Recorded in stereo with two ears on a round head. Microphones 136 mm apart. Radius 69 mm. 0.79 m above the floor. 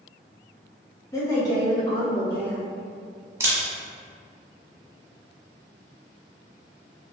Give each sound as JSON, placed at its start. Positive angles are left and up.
{"t": 1.1, "sound": "a woman speaking", "side_deg": 20, "distance_m": 0.8}
{"t": 3.4, "sound": "a camera shutter", "side_deg": -20, "distance_m": 0.8}